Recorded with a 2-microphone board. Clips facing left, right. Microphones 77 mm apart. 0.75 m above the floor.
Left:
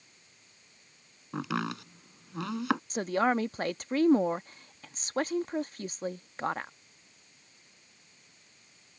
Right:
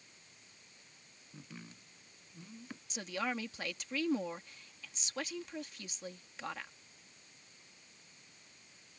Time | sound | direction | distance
1.3 | chopping | 75° left (ahead or behind) | ?
2.9 | a woman speaking | 40° left (ahead or behind) | ?